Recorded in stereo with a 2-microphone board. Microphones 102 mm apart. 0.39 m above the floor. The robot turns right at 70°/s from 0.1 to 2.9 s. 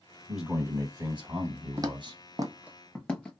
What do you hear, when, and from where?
0.3 s a man speaking: straight behind, 1.9 m; by 2.2 s 45° right, 1.9 m
1.8 s footsteps: 30° right (ahead or behind), 0.5 m; by 3.3 s 15° left (ahead or behind), 1.2 m